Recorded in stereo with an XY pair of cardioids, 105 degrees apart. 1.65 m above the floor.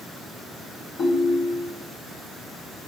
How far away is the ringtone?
About 2.5 m.